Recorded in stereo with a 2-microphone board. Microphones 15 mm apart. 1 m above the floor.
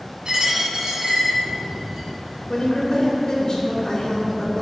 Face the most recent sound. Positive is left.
turn(degrees=45)  # may be behind; listen again after turning